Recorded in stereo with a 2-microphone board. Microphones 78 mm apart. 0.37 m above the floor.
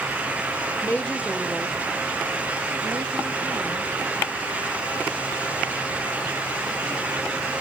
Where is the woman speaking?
25° left (ahead or behind), 1.0 m; by 3.9 s 70° right (ahead or behind), 3 m.